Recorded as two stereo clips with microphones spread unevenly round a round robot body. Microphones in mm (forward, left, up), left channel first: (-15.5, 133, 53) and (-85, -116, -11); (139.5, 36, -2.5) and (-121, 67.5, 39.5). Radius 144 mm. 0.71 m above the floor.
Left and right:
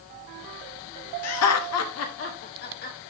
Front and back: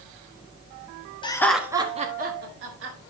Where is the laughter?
50° left, 1.3 m; by 3.0 s 130° left, 2.5 m.